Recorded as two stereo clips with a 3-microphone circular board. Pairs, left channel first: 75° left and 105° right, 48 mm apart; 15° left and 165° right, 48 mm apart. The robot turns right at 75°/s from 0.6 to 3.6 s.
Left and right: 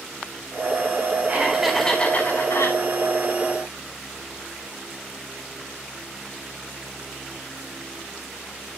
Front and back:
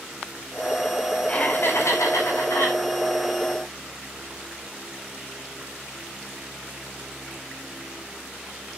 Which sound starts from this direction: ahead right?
Laughter, at 1.3 s.